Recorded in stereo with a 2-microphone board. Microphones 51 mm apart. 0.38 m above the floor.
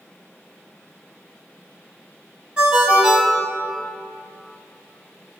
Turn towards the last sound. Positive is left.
turn(degrees=-15)  # may be behind; listen again after turning